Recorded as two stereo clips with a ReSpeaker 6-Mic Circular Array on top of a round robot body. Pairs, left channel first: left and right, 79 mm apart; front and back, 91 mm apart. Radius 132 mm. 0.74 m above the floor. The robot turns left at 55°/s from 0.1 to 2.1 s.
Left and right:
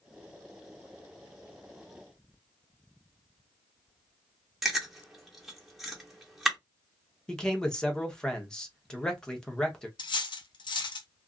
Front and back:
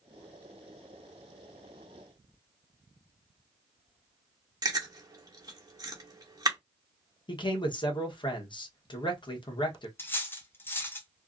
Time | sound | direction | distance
4.6 | chewing | 175° right | 1.2 m
7.3 | a man speaking | 10° left | 1.1 m
10.0 | cutlery clinking | 65° left | 0.6 m